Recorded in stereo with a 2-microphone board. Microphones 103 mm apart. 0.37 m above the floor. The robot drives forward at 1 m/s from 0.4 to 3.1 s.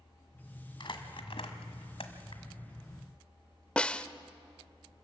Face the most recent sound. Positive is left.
turn(degrees=10)  # may be behind; listen again after turning